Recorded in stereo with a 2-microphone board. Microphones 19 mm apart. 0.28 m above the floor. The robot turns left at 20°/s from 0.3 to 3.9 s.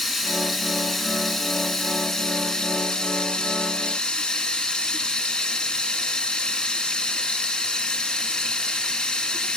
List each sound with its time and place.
0.0 s running water: 170° right, 2.5 m; by 9.6 s 120° left, 2.5 m